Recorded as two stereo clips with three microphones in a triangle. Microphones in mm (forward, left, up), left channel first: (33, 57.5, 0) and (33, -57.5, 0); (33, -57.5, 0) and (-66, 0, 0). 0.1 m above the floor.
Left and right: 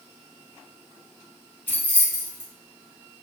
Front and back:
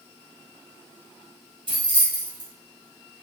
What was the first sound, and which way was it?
Keys jangling, 155° left.